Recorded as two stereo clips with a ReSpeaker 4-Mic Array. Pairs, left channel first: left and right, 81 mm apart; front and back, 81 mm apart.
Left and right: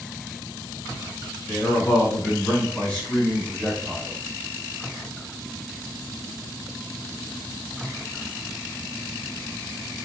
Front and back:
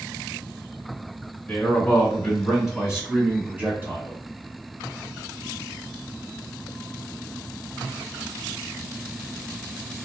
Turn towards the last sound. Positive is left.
turn(degrees=165)